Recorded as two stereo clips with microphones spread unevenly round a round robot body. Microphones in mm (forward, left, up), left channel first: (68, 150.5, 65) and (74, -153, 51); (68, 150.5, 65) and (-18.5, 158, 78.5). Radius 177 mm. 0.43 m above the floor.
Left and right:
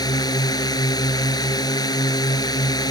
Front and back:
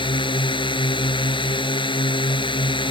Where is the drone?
15° left.